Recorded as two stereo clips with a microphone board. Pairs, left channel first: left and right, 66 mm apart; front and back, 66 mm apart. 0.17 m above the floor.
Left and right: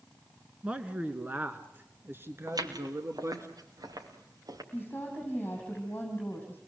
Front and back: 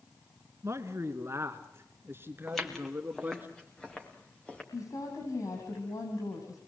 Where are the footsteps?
85° right, 3.5 m; by 4.6 s 70° right, 5 m.